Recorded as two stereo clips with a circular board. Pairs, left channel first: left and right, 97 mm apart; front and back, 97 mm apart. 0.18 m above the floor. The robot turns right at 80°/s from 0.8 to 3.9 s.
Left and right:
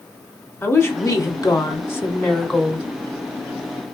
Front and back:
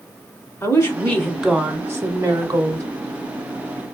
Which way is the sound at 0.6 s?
45° left.